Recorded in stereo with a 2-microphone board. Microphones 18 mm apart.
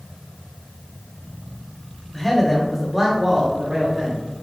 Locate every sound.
2.1 s a man speaking: 15° left (ahead or behind), 1.5 m; by 4.2 s 35° right (ahead or behind), 1.6 m